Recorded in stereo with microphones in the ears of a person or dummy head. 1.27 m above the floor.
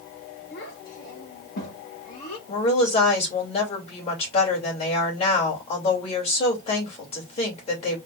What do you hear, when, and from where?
0.5 s a child speaking: 60° left (ahead or behind), 2.5 m; by 2.4 s 25° left (ahead or behind), 1.6 m
2.5 s a woman speaking: 30° left (ahead or behind), 2.5 m